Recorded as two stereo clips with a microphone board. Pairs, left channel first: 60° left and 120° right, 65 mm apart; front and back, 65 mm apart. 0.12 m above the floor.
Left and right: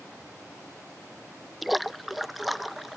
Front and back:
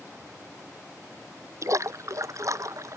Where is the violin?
I don't hear a violin.